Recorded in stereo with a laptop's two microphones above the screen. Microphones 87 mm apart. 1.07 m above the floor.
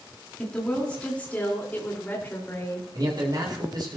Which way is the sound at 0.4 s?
10° left (ahead or behind).